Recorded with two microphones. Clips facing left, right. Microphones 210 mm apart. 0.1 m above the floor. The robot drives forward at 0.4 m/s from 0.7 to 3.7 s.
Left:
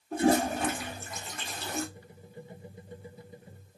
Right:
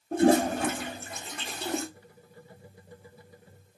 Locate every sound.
0.1 s a toilet flushing: 50° right (ahead or behind), 2.5 m; by 1.8 s 60° right (ahead or behind), 2.5 m